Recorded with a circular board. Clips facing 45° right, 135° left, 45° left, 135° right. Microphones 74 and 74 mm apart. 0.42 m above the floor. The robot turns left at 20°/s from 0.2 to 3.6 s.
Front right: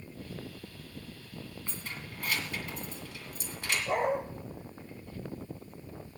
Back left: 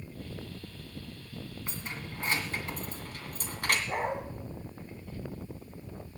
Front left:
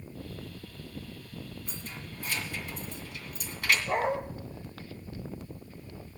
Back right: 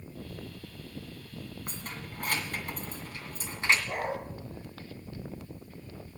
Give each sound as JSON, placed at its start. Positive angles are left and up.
{"t": 1.7, "sound": "keys jangling", "azimuth_deg": -155, "distance_m": 2.0}
{"t": 3.9, "sound": "a dog barking", "azimuth_deg": -20, "distance_m": 5.0}